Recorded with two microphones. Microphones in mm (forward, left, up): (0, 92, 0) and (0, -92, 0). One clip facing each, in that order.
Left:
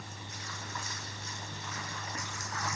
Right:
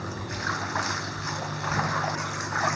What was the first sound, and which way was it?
Running water, 80° right.